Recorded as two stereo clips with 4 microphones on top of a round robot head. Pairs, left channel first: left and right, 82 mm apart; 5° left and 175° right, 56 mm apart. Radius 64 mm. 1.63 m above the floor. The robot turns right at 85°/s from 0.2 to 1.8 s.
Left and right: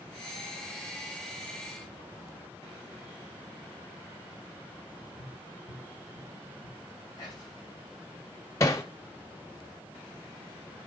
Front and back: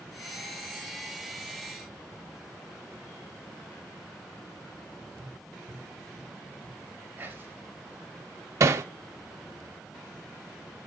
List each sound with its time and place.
5.2 s tapping: 155° left, 3.5 m
7.2 s whispering: 135° left, 2 m
8.6 s hammering: 155° left, 0.5 m